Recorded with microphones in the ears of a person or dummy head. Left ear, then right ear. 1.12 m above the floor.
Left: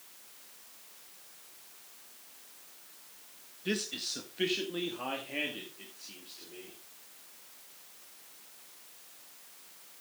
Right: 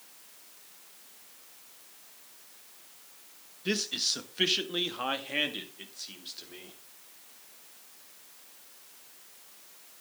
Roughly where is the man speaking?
Right.